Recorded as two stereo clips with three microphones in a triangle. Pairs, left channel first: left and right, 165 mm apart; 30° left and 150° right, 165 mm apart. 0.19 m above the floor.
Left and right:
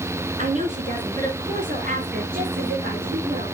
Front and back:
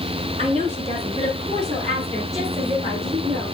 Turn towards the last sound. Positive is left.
turn(degrees=-105)